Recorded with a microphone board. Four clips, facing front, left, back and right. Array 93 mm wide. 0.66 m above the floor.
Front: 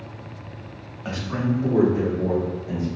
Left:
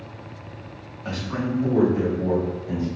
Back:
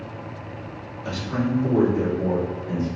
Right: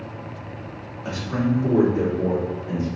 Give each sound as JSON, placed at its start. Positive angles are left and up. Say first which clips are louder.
{"t": 1.1, "sound": "a man speaking", "louder": "right 3 dB, even", "azimuth_deg": -15, "distance_m": 1.5}